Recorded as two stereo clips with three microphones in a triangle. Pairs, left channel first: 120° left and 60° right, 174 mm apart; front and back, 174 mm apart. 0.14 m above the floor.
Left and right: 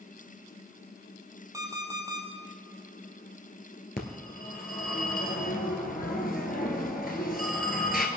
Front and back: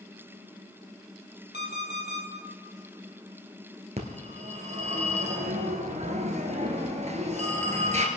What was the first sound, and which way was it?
An alarm clock, 10° left.